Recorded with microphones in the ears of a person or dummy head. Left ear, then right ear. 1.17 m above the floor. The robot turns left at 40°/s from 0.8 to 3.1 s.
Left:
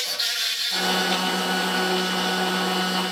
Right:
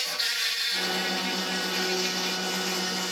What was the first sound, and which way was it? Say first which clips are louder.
An insect: left 3 dB; 5° right.